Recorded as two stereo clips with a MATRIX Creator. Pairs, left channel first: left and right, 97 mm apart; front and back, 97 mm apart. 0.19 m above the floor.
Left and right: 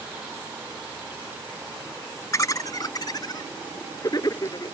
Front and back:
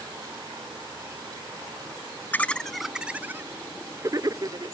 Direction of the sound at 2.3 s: 60° left.